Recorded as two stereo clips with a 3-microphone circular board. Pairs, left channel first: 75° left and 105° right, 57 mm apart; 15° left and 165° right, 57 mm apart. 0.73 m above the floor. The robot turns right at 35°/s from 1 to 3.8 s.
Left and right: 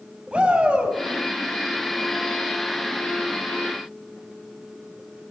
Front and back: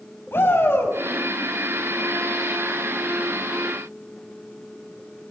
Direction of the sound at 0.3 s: 35° right.